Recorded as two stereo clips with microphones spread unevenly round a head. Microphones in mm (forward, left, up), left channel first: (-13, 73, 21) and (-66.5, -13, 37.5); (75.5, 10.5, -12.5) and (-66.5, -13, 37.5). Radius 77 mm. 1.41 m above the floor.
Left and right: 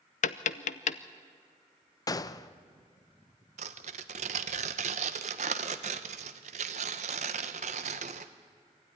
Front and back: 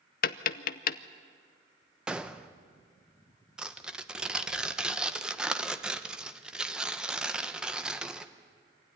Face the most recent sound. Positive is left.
turn(degrees=-95)